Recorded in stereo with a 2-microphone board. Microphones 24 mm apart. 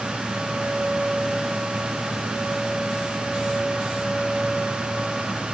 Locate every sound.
Only background noise.